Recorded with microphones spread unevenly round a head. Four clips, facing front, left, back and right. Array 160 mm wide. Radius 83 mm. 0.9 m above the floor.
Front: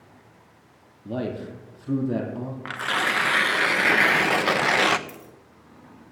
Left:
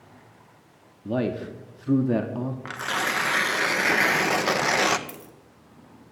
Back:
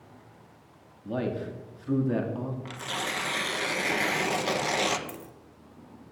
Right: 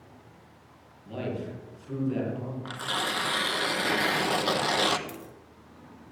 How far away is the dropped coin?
About 1.0 m.